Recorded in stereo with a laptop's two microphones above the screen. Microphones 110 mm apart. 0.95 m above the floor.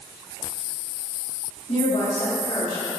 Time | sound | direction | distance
1.7 | a woman speaking | 60° left (ahead or behind) | 2 m